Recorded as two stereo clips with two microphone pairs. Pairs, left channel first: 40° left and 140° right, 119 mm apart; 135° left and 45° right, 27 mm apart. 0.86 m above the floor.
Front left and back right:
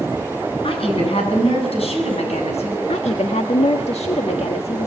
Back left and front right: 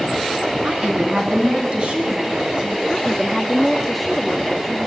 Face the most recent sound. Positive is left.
turn(degrees=55)